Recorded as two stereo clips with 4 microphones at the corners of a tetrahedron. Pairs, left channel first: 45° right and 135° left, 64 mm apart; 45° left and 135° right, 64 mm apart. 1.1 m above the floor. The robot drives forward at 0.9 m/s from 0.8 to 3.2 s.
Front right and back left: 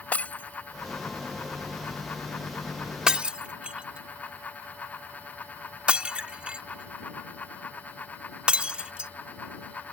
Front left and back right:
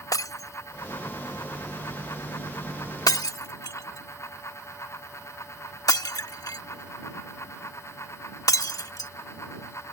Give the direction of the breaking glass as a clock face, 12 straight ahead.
11 o'clock.